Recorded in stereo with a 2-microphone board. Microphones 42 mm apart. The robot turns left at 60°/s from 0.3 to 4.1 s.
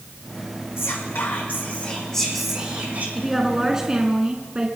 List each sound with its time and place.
0.8 s whispering: 95° left, 5.5 m; by 3.0 s 40° right, 5.5 m
3.1 s a woman speaking: centre (ahead or behind), 1.5 m; by 4.7 s 25° right (ahead or behind), 1.5 m